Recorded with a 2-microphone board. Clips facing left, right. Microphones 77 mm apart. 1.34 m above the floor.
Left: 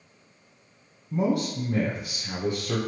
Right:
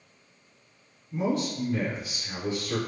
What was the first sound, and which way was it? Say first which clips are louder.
A man speaking: left 3 dB; 60° left (ahead or behind).